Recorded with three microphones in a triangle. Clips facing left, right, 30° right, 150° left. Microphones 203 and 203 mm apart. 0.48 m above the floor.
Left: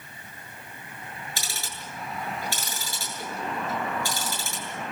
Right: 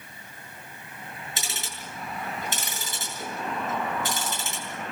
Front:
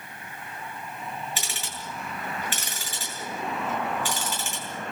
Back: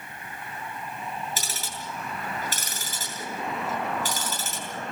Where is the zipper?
No zipper in this recording.